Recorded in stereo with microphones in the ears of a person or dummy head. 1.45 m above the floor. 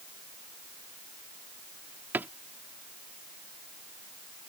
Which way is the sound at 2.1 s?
5° right (ahead or behind).